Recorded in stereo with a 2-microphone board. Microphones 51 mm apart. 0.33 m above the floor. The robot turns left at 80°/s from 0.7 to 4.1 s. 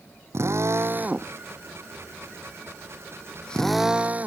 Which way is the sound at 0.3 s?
60° right (ahead or behind).